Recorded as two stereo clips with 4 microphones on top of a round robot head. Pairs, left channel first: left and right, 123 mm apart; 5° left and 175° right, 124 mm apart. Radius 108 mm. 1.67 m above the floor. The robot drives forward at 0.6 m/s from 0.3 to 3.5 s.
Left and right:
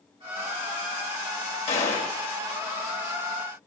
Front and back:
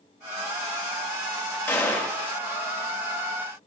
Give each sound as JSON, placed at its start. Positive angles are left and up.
{"t": 1.7, "sound": "a gunshot", "azimuth_deg": 70, "distance_m": 1.6}